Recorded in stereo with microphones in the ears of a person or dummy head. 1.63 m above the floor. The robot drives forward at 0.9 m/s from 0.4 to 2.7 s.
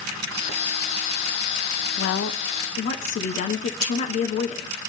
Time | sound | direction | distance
2.0 | a woman speaking | 55° left (ahead or behind) | 0.6 m
3.8 | cutlery clinking | 25° right (ahead or behind) | 2.5 m